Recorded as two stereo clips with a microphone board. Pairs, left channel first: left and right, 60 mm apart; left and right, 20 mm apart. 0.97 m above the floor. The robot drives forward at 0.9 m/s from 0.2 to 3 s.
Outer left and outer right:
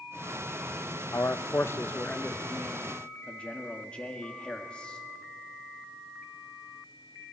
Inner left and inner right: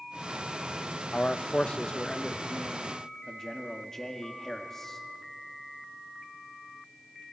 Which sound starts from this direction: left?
A man speaking, at 1.1 s.